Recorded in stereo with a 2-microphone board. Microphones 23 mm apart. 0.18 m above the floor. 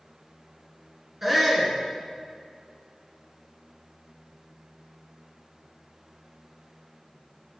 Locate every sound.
1.2 s a shout: 15° right (ahead or behind), 1.9 m